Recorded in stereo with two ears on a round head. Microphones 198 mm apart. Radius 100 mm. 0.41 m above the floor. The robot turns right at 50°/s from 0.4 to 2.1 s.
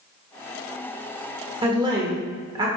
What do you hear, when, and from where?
1.6 s a woman speaking: 25° right (ahead or behind), 1.2 m; by 2.7 s 20° right (ahead or behind), 1.2 m